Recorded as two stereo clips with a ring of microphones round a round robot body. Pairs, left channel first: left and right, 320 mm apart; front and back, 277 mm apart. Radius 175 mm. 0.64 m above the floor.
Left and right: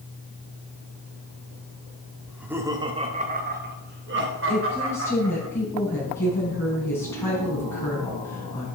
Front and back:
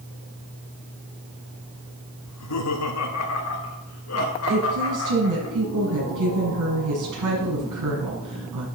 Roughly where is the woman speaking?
Behind.